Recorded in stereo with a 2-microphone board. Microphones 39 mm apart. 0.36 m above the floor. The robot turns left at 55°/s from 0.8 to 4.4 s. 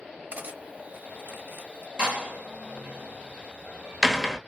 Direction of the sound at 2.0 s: 25° right (ahead or behind).